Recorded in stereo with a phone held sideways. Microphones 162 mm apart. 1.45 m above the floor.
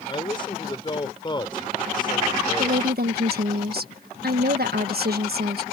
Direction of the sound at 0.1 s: 30° left (ahead or behind).